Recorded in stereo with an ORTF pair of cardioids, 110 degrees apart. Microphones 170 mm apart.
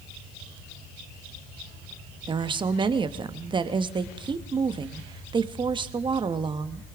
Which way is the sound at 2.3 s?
30° right.